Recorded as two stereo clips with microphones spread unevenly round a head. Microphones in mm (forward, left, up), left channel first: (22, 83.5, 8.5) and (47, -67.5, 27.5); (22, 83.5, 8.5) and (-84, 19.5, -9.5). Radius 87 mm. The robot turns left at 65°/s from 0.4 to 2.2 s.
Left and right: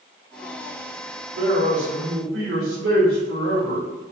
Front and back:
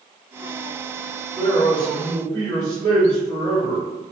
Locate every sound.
1.4 s a man speaking: 60° right, 1.3 m; by 3.9 s 110° right, 1.3 m